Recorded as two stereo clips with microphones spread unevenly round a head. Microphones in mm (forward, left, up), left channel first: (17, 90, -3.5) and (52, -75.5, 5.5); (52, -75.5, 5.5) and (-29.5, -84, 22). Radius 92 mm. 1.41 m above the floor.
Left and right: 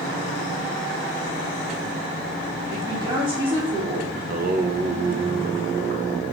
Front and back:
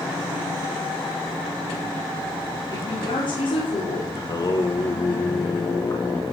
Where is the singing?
35° right, 1.3 m.